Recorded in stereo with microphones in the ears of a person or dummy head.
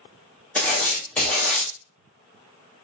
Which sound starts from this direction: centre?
Writing, at 0.6 s.